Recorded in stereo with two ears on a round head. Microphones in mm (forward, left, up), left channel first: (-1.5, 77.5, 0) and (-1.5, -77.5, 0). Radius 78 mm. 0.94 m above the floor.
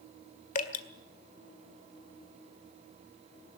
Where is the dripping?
45° left (ahead or behind), 1.7 m.